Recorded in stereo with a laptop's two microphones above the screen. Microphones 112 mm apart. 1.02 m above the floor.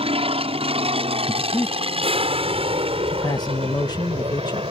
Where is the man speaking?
40° left (ahead or behind).